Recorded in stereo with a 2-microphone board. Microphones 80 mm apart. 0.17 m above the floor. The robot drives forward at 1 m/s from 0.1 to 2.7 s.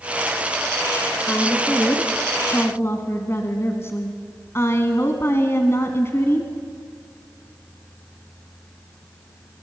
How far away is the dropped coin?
No dropped coin in this recording.